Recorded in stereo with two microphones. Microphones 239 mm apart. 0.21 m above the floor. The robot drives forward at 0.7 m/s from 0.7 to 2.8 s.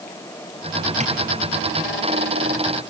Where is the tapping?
30° right (ahead or behind), 2.5 m.